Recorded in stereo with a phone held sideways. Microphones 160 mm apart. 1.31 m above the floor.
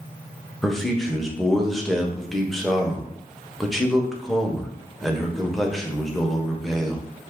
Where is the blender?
No blender in this recording.